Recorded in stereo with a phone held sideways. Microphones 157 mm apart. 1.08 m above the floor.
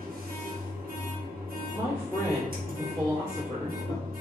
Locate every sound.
0.0 s a machine running: 75° right (ahead or behind), 0.7 m
1.7 s a man speaking: centre (ahead or behind), 1.3 m